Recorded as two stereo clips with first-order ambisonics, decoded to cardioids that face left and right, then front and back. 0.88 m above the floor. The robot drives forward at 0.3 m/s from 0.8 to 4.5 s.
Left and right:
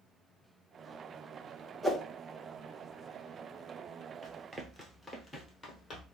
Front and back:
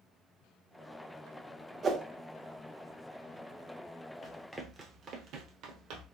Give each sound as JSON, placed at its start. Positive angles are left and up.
{"t": 1.8, "sound": "a whoosh", "azimuth_deg": -155, "distance_m": 0.7}
{"t": 4.2, "sound": "running footsteps", "azimuth_deg": -65, "distance_m": 0.9}